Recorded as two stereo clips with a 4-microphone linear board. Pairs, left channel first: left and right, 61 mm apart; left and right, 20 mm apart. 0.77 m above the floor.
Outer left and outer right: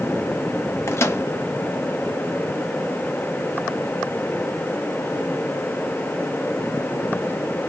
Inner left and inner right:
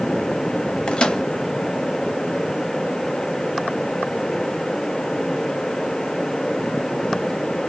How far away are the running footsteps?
I don't hear running footsteps.